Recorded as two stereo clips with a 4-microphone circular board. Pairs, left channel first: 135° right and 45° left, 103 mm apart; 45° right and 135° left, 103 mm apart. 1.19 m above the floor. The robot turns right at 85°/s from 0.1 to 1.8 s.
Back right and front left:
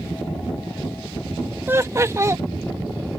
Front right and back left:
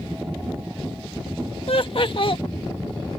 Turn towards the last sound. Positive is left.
turn(degrees=-15)